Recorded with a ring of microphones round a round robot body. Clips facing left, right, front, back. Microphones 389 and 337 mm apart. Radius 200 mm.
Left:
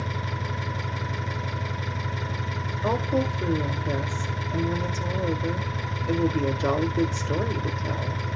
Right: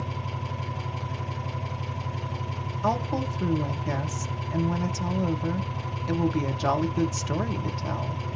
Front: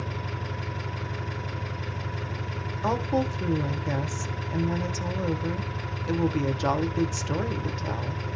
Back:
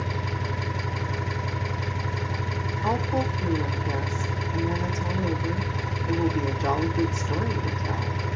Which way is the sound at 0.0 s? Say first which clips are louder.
Left 2 dB, back 3 dB; 135° left.